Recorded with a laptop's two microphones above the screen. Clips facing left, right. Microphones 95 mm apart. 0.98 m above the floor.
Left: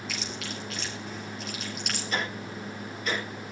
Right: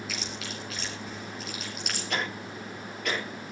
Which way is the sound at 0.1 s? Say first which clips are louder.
Left 1 dB; centre (ahead or behind).